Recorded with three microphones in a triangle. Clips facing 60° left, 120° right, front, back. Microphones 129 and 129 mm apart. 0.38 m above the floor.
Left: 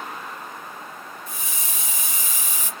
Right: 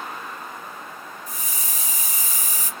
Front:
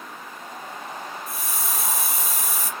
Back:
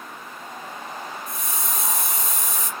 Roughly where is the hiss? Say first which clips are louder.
Even, even; right.